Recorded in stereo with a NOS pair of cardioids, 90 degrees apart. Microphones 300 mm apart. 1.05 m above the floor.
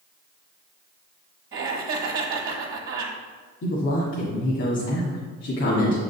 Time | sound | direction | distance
1.5 | laughter | 45° right | 1.3 m
3.6 | a woman speaking | 55° left | 1.8 m